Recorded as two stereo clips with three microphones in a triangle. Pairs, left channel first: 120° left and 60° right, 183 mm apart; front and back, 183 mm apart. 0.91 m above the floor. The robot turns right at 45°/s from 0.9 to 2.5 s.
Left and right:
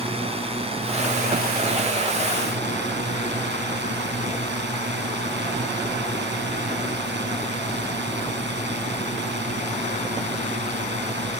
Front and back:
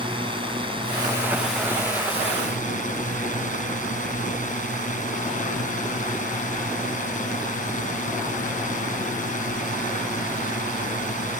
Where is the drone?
120° right; by 11.4 s 45° right.